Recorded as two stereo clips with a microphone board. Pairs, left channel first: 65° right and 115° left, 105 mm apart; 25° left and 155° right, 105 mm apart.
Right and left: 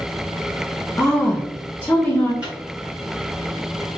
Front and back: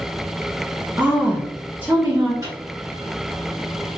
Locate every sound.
1.0 s a woman speaking: 110° right, 1.1 m
2.4 s a microwave: straight behind, 1.1 m